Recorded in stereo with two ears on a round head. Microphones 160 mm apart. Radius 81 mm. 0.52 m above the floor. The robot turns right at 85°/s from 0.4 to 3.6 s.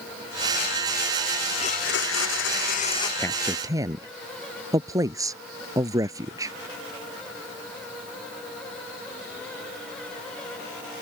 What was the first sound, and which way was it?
A blender, 30° left.